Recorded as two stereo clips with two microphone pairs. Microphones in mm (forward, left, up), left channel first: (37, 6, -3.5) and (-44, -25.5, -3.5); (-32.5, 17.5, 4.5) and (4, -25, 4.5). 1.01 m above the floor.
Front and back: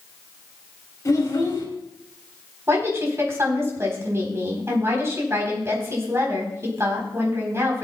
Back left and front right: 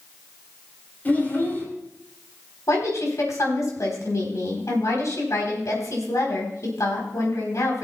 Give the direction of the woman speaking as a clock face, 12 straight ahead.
7 o'clock.